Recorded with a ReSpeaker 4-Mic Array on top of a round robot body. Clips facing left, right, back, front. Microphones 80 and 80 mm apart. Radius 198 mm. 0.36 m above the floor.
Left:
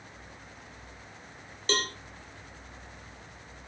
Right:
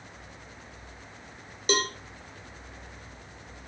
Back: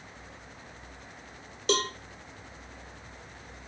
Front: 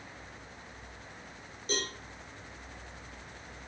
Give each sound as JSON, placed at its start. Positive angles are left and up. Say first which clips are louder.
{"t": 1.7, "sound": "a cowbell", "louder": "right 3 dB, back 8 dB", "azimuth_deg": -165, "distance_m": 0.9}